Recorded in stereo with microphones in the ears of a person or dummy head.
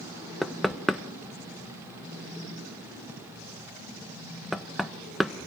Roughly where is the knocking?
Centre.